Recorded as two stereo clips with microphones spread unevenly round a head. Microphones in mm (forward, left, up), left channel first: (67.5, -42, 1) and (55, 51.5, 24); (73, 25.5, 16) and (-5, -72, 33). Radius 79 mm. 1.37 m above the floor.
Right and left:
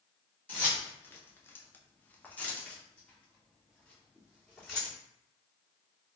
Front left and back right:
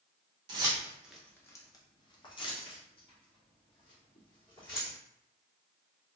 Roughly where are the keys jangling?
Behind.